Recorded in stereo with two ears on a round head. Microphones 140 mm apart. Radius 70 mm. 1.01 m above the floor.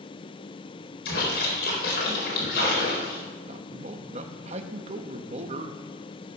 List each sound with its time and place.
1.1 s a splash: 70° left (ahead or behind), 4.5 m
3.5 s a man speaking: 40° right (ahead or behind), 1.1 m